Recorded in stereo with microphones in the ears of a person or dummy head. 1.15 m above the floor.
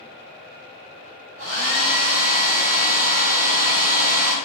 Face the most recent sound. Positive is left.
turn(degrees=-40)  # may be behind; listen again after turning